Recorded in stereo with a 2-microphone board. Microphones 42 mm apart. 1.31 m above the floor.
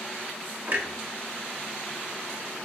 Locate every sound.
0.7 s a clunk: 55° right (ahead or behind), 1.5 m